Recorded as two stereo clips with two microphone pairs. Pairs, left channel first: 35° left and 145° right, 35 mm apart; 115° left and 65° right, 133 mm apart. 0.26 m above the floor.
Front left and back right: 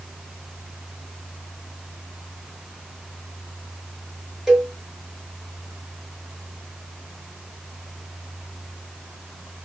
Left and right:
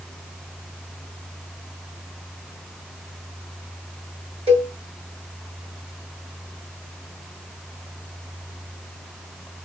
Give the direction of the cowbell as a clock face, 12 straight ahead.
2 o'clock.